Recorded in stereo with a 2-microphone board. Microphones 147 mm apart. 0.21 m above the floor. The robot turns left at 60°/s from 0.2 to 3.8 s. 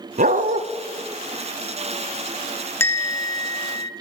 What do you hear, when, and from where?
0.2 s a dog barking: 65° right (ahead or behind), 0.5 m; by 0.6 s 55° right (ahead or behind), 0.5 m
2.8 s a bell: 150° left, 0.7 m; by 3.9 s 90° left, 0.7 m